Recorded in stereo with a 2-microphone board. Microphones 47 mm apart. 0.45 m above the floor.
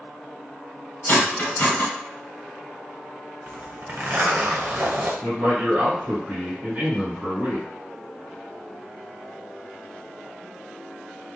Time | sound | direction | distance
1.1 | cutlery clinking | 40° left (ahead or behind) | 1.3 m
3.5 | a zipper | 55° right (ahead or behind) | 0.6 m
5.2 | a man speaking | 25° right (ahead or behind) | 1.9 m